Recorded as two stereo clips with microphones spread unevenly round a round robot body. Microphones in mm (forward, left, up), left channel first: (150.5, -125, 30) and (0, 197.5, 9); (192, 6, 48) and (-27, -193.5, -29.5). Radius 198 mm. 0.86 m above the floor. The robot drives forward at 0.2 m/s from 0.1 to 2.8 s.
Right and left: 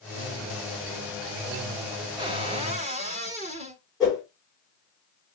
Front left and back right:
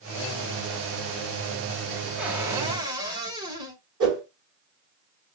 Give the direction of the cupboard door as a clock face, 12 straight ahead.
6 o'clock.